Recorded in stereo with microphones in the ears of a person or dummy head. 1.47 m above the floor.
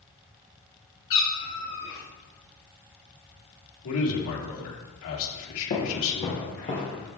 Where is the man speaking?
80° left, 1.9 m.